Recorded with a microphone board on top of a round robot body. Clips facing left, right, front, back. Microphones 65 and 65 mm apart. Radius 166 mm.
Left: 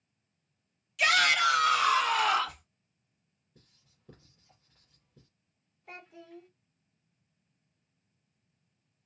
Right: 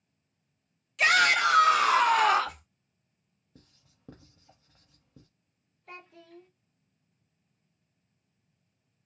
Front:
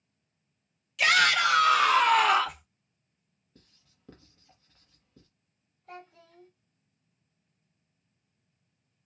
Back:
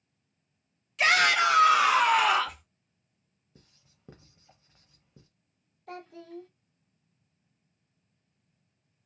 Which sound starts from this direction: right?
Writing, at 3.5 s.